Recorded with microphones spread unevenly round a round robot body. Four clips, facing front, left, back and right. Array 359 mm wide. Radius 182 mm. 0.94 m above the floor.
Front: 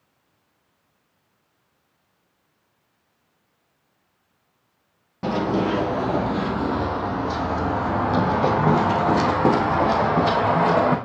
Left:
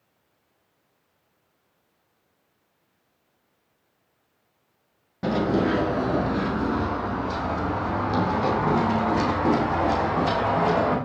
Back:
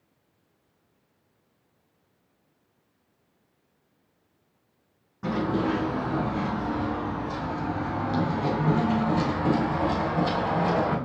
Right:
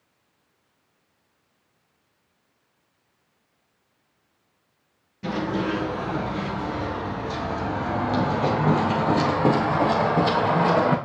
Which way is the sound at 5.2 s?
35° left.